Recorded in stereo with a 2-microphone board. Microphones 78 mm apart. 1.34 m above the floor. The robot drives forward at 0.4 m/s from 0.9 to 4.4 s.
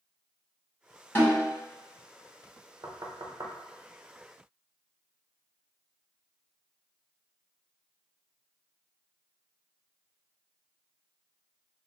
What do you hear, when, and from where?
1.1 s a snare drum: 25° left (ahead or behind), 1.5 m
2.8 s knocking: 50° right (ahead or behind), 0.5 m